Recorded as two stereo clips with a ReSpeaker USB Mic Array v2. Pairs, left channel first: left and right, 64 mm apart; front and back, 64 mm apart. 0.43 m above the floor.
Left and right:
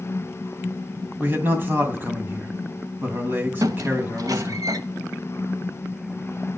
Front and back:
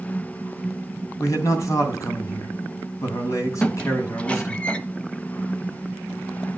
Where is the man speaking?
35° right, 3 m.